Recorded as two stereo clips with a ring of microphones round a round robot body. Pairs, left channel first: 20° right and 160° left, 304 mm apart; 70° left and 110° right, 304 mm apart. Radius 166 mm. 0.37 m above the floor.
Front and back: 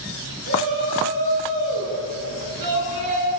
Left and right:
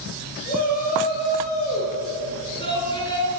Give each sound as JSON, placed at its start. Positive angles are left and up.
{"t": 0.5, "sound": "a shout", "azimuth_deg": 130, "distance_m": 8.5}